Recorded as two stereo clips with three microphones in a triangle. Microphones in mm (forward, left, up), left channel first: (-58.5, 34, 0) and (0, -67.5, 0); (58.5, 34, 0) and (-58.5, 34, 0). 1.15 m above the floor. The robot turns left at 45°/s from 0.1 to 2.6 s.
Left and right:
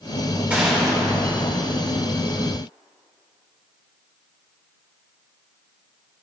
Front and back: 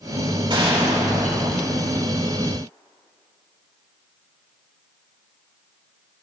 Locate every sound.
0.5 s a gunshot: 135° right, 2.5 m; by 1.8 s 165° left, 2.5 m